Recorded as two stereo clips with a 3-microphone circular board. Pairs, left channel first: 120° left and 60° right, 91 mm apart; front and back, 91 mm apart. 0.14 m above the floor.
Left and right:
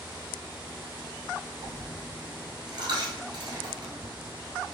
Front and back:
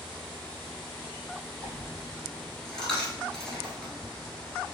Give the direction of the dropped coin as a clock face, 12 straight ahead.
3 o'clock.